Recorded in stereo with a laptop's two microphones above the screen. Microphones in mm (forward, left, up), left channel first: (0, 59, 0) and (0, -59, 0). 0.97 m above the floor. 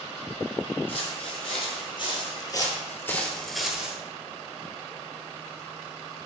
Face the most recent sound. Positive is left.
turn(degrees=-15)  # may be behind; listen again after turning